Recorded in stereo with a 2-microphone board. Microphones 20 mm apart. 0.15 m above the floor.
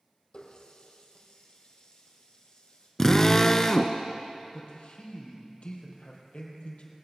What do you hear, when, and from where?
0.3 s a running tap: 55° left (ahead or behind), 3.5 m
3.0 s a drill: 25° left (ahead or behind), 0.8 m
4.5 s a man speaking: 70° left (ahead or behind), 4 m